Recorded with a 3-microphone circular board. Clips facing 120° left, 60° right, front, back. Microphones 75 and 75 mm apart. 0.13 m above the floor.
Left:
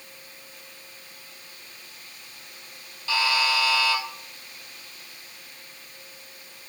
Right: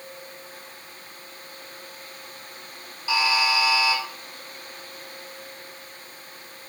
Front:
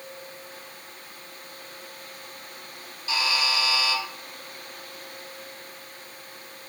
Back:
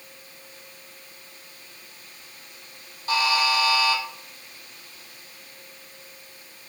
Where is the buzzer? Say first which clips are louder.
Right 2 dB, back 5 dB; 140° right, 1.0 m.